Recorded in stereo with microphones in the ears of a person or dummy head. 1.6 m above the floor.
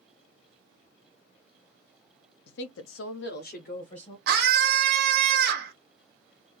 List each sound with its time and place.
2.5 s a woman speaking: 60° left (ahead or behind), 0.6 m; by 4.2 s 35° left (ahead or behind), 1.2 m
4.3 s a scream: 65° right (ahead or behind), 1.2 m